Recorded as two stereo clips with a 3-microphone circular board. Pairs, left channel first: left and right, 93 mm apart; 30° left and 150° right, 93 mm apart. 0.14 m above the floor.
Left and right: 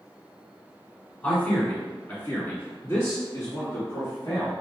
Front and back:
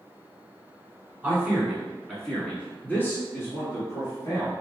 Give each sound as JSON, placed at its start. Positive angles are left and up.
{"t": 1.2, "sound": "a man speaking", "azimuth_deg": 150, "distance_m": 1.5}